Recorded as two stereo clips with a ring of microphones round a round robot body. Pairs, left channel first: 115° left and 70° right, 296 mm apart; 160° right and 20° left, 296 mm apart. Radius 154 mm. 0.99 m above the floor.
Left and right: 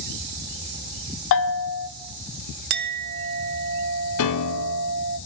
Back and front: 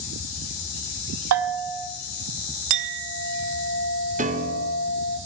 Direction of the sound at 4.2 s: 85° left.